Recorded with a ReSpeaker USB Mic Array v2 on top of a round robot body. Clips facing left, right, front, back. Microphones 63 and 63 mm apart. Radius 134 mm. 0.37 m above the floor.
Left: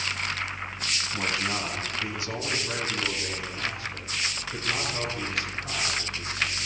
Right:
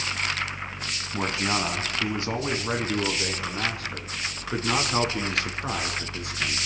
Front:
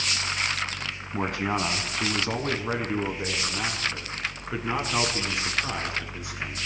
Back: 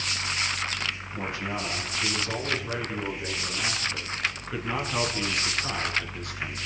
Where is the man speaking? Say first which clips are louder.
Right 4 dB, front 8 dB; 30° right, 4.5 m; by 6.6 s 85° right, 7 m.